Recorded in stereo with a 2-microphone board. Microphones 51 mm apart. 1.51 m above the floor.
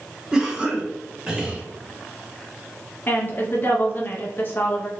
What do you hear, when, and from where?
0.3 s a cough: 15° right (ahead or behind), 1.0 m
3.1 s a woman speaking: 40° left (ahead or behind), 0.9 m